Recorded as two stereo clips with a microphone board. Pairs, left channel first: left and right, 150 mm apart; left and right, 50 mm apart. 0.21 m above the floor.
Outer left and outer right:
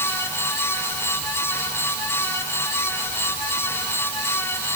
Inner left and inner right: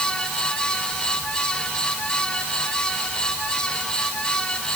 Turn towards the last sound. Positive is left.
No sound to turn to.